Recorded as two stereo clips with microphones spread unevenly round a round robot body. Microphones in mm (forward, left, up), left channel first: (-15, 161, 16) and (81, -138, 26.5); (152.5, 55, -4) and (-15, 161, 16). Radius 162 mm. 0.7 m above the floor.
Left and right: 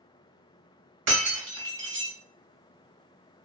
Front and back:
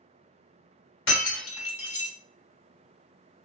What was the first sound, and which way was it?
Breaking glass, 35° right.